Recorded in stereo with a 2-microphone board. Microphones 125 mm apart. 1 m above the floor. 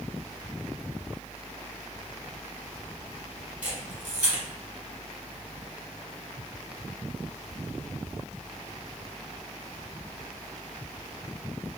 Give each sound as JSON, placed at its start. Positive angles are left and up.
{"t": 3.6, "sound": "a camera shutter", "side_deg": -10, "distance_m": 1.3}